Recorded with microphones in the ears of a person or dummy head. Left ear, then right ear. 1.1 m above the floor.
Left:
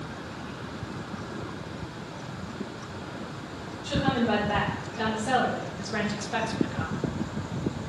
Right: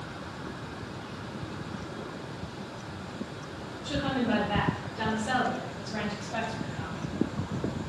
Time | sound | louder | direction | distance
3.8 | a woman speaking | left 4 dB | 35° left (ahead or behind) | 1.9 m